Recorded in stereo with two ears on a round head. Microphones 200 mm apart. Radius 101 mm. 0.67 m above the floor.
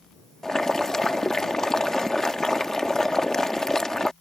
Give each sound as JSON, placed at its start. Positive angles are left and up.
{"t": 0.4, "sound": "boiling", "side_deg": 5}